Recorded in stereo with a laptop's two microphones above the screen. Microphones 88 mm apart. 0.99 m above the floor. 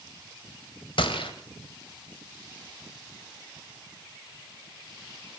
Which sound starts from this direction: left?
A gunshot, at 1.0 s.